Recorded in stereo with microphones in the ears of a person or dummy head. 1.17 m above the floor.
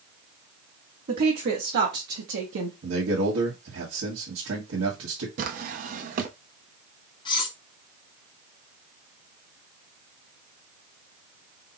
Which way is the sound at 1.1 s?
50° right (ahead or behind).